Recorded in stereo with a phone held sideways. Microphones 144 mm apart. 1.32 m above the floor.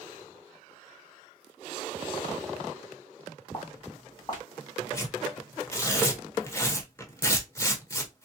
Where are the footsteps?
25° left (ahead or behind), 2 m.